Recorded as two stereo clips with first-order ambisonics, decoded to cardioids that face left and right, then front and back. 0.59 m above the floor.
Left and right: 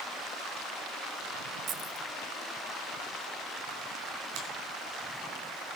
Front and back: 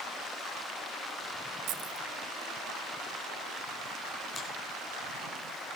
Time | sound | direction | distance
1.7 | keys jangling | 150° right | 0.7 m
4.3 | a finger snap | 70° right | 4.5 m